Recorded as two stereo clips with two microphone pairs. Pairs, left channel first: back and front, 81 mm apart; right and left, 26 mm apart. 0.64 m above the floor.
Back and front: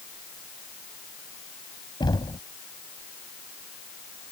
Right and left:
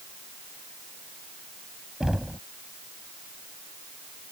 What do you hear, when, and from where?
2.0 s knocking: 155° left